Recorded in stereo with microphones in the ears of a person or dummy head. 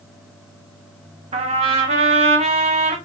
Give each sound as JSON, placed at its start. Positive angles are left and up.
{"t": 1.3, "sound": "a trumpet", "side_deg": -30, "distance_m": 0.8}